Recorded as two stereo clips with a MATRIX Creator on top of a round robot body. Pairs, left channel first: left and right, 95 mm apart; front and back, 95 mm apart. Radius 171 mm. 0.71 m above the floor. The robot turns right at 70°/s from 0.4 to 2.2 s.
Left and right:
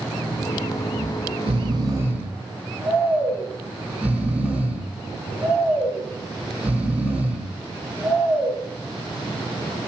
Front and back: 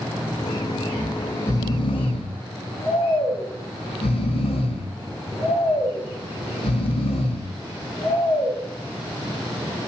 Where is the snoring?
100° right, 5.5 m; by 8.6 s 10° right, 5.5 m.